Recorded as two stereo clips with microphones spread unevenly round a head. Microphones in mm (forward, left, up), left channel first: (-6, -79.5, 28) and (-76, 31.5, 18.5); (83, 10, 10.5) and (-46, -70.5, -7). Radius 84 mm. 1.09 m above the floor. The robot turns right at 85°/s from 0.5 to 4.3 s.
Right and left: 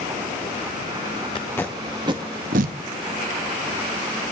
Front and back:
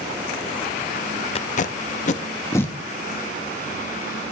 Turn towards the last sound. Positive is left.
turn(degrees=-115)